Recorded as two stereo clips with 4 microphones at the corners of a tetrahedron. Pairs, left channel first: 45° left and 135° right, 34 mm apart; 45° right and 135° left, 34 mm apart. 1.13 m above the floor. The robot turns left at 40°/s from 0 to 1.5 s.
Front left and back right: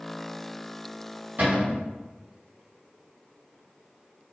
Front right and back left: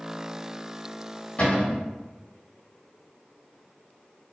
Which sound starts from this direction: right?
A cupboard door, at 1.4 s.